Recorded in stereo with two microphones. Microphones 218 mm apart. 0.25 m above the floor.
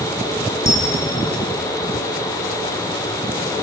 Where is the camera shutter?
70° right (ahead or behind), 5.5 m.